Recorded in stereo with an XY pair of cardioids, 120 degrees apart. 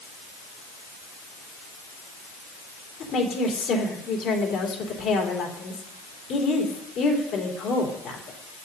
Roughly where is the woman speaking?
Ahead left.